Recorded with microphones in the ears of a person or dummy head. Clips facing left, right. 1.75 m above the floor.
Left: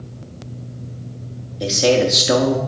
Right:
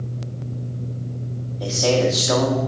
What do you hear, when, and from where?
1.6 s a man speaking: 30° left (ahead or behind), 0.9 m